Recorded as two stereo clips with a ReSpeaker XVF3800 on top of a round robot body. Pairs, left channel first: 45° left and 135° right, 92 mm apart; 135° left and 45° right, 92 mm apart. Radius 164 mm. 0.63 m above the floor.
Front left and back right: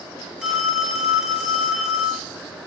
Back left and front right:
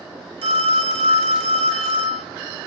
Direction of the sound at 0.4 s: 55° right.